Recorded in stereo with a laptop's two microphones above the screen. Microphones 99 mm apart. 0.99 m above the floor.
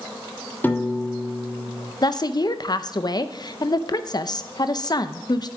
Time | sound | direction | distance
0.6 | a piano | 20° left (ahead or behind) | 1.3 m
2.0 | a woman speaking | 45° left (ahead or behind) | 0.7 m